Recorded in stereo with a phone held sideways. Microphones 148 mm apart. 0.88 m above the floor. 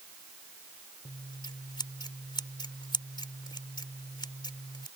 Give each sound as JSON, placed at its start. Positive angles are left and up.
{"t": 1.1, "sound": "scissors", "side_deg": 30}